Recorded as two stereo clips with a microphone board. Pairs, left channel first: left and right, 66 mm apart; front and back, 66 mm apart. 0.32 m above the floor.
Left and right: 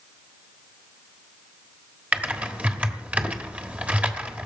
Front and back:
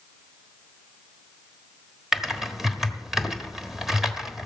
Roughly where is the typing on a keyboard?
Right.